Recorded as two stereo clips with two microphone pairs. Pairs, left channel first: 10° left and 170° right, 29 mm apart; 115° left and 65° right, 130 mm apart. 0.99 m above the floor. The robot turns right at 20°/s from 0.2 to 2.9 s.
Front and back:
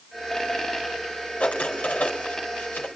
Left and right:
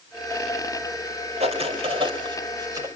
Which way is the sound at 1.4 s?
30° right.